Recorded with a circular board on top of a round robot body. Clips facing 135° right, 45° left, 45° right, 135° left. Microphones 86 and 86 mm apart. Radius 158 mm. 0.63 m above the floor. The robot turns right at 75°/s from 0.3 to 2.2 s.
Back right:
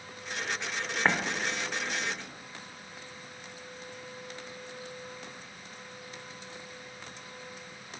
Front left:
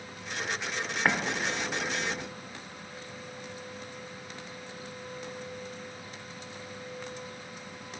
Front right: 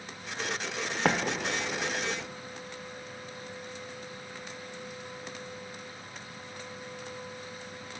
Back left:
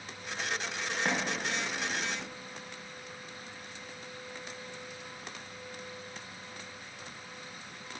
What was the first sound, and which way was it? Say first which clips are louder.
An explosion: even, front right 6 dB; 50° right.